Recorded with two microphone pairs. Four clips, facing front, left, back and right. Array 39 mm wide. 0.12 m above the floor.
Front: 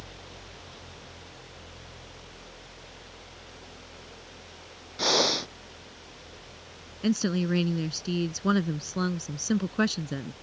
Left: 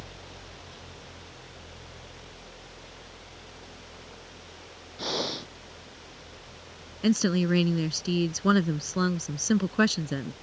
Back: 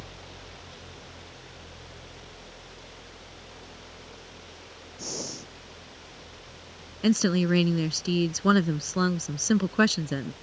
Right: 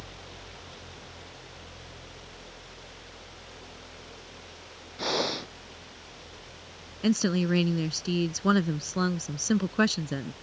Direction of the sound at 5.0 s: 15° right.